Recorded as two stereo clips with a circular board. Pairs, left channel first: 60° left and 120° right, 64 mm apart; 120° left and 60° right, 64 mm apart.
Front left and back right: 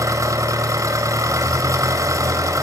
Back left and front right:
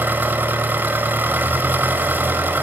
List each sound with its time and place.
0.0 s an engine running: 115° right, 1.7 m